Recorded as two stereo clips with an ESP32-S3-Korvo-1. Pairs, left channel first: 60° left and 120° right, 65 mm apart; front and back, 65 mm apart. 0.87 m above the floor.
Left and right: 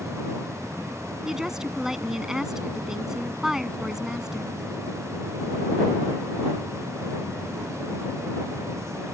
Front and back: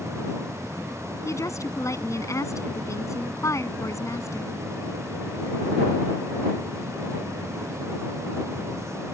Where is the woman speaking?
40° right.